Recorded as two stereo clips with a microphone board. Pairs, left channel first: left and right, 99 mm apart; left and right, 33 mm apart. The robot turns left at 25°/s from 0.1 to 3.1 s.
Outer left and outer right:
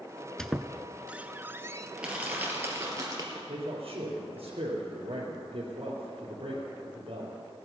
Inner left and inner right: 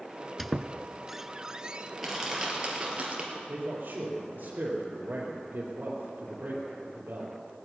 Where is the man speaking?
60° right (ahead or behind), 3.5 m.